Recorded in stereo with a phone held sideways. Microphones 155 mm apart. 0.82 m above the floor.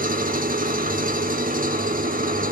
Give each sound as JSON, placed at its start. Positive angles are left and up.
{"t": 0.0, "sound": "an engine running", "side_deg": -65, "distance_m": 0.9}